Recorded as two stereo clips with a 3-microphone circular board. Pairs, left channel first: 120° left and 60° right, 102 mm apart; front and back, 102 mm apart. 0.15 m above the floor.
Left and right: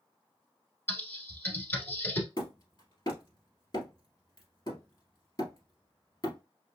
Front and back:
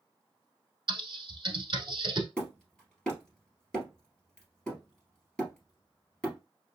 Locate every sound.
0.9 s typing on a keyboard: straight behind, 1.1 m
2.4 s hammering: 80° left, 1.8 m